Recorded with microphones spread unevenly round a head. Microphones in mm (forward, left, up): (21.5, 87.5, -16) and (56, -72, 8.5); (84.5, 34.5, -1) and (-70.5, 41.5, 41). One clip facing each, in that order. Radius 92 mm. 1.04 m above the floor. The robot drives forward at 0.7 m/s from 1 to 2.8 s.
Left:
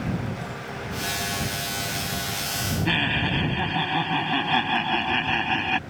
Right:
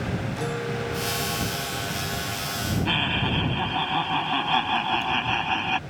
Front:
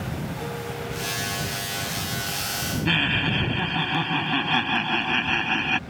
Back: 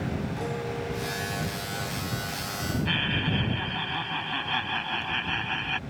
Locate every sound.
0.4 s a guitar: 105° right; by 2.4 s 115° right
2.9 s laughter: 25° left